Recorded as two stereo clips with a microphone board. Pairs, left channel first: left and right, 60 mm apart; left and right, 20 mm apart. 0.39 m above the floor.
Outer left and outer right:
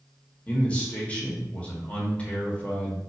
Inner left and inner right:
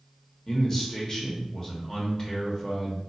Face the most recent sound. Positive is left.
turn(degrees=20)  # may be behind; listen again after turning